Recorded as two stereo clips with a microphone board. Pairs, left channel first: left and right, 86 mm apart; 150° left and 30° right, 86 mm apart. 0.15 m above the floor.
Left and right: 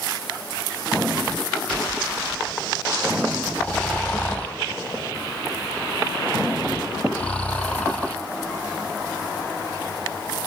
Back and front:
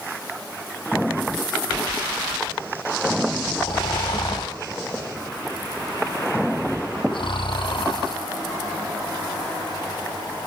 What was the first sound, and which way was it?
Snoring, 165° left.